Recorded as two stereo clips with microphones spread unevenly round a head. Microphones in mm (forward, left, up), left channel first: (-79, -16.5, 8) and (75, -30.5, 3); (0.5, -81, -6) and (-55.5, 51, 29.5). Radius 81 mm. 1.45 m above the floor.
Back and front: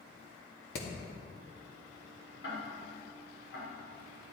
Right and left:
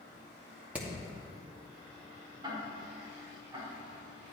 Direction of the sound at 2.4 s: 170° left.